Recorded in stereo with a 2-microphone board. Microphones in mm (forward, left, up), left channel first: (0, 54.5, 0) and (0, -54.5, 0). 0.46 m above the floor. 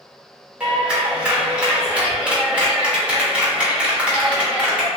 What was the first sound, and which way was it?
A clap, 10° right (ahead or behind).